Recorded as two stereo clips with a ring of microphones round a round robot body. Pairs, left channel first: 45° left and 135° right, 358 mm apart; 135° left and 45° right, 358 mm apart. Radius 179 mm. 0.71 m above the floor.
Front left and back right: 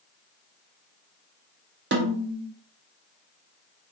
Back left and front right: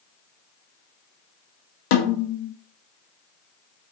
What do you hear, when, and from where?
1.9 s a snare drum: 165° left, 0.6 m